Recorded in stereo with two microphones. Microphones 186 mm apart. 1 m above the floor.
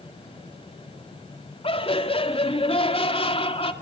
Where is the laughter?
35° left (ahead or behind), 2.5 m.